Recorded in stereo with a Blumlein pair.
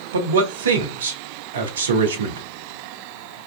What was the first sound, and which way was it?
A man speaking, 65° right.